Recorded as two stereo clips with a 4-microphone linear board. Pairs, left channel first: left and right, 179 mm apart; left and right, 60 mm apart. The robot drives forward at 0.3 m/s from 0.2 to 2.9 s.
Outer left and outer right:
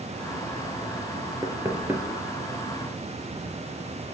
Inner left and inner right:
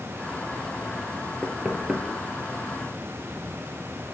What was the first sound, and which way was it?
Knocking, 15° right (ahead or behind).